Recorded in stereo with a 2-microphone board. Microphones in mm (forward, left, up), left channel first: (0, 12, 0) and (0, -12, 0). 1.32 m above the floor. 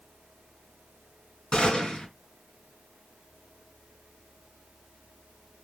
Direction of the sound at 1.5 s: 45° left (ahead or behind).